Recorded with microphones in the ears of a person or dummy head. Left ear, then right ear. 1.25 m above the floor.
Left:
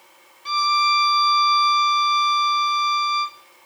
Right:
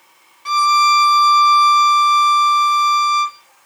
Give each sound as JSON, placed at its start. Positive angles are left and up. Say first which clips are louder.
{"t": 0.5, "sound": "a violin", "louder": "right 6 dB", "side_deg": -25, "distance_m": 0.5}